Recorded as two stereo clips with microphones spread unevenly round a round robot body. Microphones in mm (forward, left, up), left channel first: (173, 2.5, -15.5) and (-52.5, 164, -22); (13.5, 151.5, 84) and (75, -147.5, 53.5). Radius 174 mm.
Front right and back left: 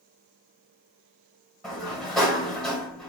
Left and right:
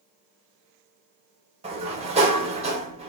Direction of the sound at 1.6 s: 120° right.